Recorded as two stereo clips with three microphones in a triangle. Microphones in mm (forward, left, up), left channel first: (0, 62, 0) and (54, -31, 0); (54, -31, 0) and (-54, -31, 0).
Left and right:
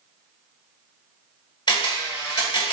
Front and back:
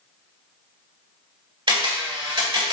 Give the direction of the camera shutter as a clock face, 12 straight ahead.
7 o'clock.